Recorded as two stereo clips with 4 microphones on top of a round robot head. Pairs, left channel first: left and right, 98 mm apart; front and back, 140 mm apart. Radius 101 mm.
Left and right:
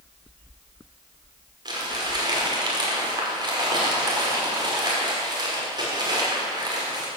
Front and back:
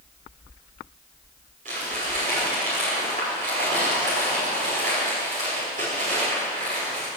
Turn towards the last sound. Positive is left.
turn(degrees=-135)